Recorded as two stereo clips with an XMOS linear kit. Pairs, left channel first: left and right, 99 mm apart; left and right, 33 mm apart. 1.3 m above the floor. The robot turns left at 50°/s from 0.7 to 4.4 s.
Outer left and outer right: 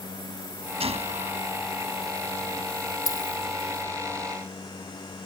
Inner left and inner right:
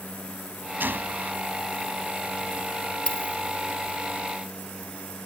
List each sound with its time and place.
0.8 s a gunshot: 70° right (ahead or behind); by 1.4 s 80° right
3.1 s a dropped coin: 35° left (ahead or behind); by 3.4 s 50° left (ahead or behind)